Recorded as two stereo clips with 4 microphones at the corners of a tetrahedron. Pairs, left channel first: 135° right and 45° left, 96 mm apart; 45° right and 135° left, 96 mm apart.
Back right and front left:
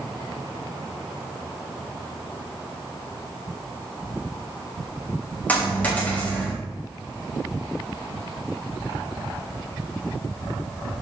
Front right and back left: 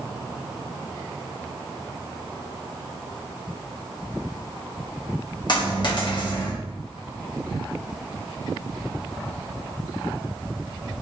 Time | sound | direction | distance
5.5 | a dropped coin | 70° right | 1.1 m